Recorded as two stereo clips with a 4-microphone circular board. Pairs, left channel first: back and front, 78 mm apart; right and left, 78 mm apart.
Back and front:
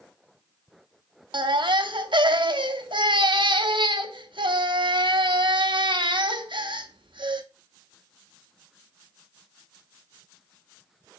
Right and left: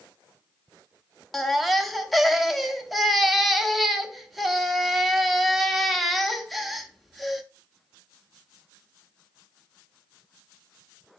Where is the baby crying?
Straight ahead, 0.6 m.